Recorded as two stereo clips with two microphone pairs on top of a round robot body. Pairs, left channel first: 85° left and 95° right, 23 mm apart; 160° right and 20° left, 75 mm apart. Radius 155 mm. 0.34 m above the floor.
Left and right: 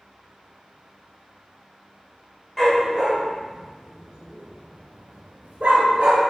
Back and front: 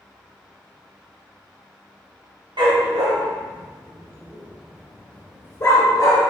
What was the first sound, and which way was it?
A dog barking, straight ahead.